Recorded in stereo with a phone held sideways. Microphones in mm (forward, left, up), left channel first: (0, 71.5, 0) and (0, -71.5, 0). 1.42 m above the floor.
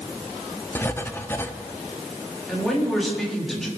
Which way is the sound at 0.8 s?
15° left (ahead or behind).